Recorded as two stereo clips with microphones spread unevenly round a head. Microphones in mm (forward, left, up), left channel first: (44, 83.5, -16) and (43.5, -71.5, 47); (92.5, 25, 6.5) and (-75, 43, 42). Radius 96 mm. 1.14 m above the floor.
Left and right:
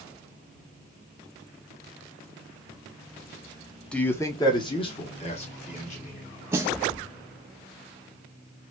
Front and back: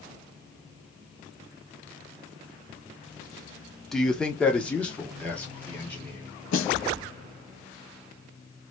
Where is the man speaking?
60° left, 0.7 m; by 6.2 s 70° left, 1.9 m.